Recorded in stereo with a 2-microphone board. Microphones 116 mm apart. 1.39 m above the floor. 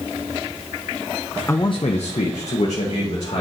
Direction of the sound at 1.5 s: 20° left (ahead or behind).